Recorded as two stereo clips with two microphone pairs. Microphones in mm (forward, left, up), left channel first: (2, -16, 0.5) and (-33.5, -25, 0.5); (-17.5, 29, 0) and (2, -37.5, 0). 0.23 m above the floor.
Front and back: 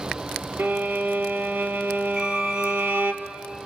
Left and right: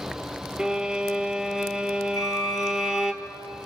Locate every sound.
0.6 s a violin: 150° right, 1.3 m
2.1 s a violin: 130° left, 2 m